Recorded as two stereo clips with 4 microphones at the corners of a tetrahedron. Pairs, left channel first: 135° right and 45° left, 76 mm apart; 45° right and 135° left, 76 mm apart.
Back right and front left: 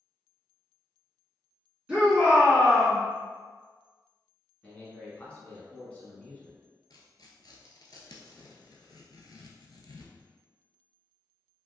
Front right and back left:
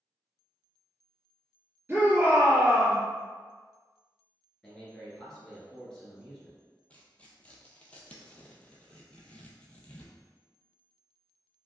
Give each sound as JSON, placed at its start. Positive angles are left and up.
{"t": 1.9, "sound": "a shout", "azimuth_deg": 115, "distance_m": 1.9}
{"t": 4.6, "sound": "a man speaking", "azimuth_deg": -110, "distance_m": 1.1}
{"t": 6.9, "sound": "tearing paper", "azimuth_deg": -120, "distance_m": 0.5}